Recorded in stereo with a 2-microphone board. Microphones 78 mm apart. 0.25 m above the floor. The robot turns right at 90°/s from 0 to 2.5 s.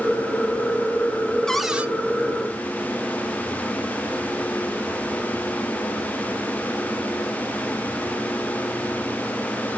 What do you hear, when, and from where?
1.5 s a cupboard door: 170° left, 0.9 m; by 1.9 s 155° right, 0.9 m